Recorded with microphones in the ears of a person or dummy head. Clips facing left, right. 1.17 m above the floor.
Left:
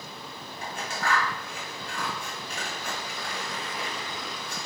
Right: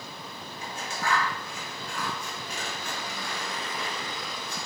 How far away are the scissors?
About 1.1 m.